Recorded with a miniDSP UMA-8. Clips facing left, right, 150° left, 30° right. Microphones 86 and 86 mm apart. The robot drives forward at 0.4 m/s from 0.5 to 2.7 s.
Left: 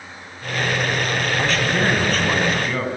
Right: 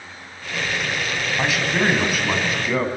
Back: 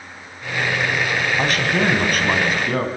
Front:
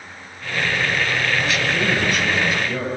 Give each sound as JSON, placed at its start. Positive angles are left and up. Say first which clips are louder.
{"t": 1.4, "sound": "a man speaking", "louder": "right 1 dB, back 2 dB", "azimuth_deg": -170, "distance_m": 3.5}